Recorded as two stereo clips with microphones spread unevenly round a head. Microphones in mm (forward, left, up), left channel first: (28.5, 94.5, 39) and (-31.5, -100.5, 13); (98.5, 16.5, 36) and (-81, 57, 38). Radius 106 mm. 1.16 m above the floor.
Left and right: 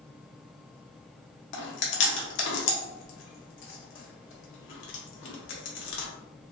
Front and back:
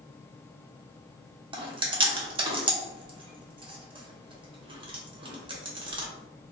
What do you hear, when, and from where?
1.5 s chewing: 105° left, 0.9 m